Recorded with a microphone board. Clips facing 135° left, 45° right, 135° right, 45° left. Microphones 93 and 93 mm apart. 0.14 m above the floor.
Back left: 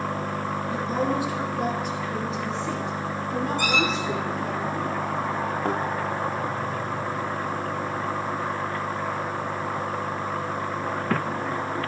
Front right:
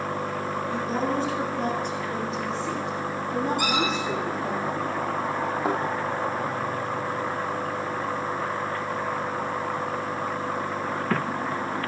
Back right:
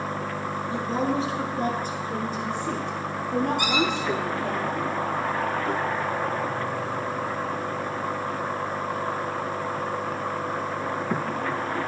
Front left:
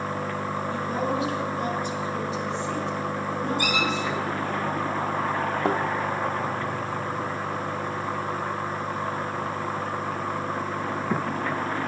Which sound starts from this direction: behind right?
A squeak, at 3.6 s.